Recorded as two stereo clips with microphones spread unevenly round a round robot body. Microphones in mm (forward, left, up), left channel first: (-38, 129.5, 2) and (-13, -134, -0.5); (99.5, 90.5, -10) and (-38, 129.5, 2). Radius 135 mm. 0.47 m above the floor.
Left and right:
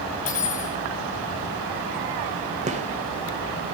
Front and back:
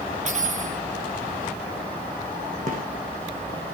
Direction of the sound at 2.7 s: 145° right.